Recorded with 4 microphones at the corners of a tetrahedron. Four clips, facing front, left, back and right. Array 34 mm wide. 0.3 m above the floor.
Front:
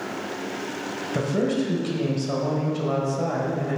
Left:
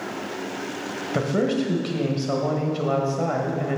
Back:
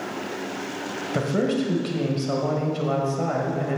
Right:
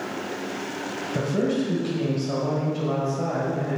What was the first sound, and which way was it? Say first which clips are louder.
A man speaking: left 2 dB, even; 110° left.